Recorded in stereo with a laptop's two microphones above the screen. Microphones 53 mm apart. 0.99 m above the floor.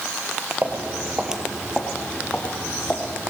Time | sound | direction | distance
0.6 | footsteps | 30° right (ahead or behind) | 1.8 m